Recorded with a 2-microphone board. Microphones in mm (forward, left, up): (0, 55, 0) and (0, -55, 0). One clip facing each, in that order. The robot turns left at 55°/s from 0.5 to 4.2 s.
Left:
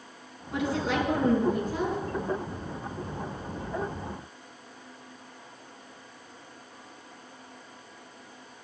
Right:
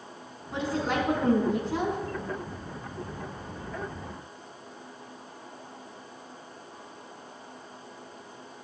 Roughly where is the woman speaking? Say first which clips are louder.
Left 1 dB; ahead right.